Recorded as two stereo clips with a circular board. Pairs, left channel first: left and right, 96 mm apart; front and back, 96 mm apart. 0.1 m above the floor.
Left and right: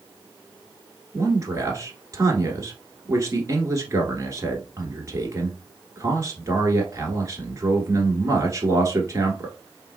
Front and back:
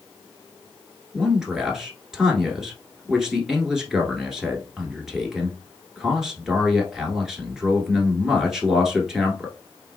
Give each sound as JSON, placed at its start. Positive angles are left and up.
{"t": 1.1, "sound": "a man speaking", "azimuth_deg": -100, "distance_m": 1.3}